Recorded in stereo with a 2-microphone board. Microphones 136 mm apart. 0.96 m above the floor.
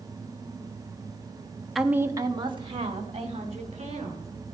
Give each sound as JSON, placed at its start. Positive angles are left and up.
{"t": 1.8, "sound": "a woman speaking", "side_deg": 0, "distance_m": 0.8}